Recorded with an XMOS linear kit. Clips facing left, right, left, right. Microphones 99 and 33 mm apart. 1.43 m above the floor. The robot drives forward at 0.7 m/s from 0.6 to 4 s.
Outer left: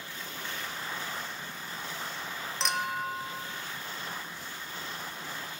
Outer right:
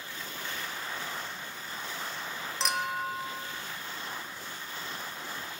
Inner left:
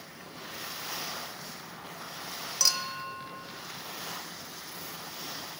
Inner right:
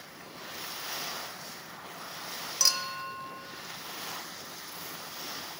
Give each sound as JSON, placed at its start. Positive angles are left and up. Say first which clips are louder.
{"t": 2.6, "sound": "a clink", "louder": "even, even", "side_deg": 0, "distance_m": 0.8}